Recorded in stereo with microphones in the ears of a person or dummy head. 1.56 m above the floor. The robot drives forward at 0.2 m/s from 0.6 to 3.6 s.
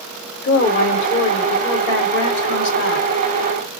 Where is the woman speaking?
70° left (ahead or behind), 1.6 m; by 3.2 s 55° left (ahead or behind), 1.8 m.